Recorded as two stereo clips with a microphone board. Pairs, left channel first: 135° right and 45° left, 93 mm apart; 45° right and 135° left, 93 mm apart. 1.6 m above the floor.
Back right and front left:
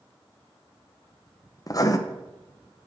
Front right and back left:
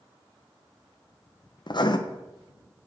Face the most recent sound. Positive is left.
turn(degrees=-85)